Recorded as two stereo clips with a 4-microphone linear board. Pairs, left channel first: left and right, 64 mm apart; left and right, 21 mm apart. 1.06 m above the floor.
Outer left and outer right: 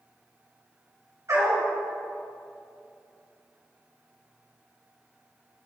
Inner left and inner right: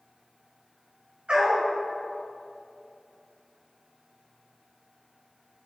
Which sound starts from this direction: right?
A dog barking, at 1.3 s.